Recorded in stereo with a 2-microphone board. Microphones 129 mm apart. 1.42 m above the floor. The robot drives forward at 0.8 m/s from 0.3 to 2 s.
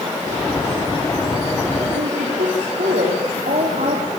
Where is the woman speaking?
85° right, 4 m.